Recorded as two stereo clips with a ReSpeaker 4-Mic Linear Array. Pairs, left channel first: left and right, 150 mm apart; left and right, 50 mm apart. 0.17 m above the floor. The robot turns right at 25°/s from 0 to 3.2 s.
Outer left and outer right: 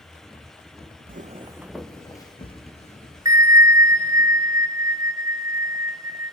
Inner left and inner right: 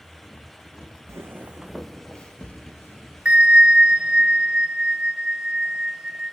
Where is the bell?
25° right (ahead or behind), 0.7 m.